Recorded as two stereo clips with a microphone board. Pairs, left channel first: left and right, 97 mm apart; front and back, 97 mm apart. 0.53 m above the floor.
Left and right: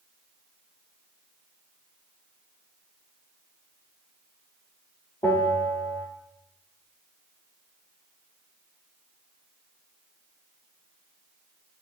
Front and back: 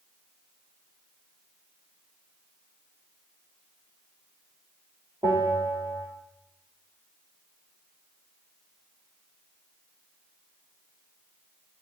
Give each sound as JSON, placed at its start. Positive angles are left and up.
{"t": 5.2, "sound": "a bell", "azimuth_deg": 135, "distance_m": 7.0}